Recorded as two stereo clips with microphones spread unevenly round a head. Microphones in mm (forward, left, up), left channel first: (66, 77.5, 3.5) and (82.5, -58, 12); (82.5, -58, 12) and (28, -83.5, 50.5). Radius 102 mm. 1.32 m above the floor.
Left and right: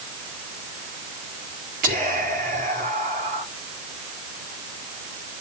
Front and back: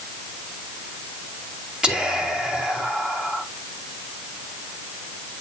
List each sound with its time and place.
1.8 s whispering: 75° right, 4 m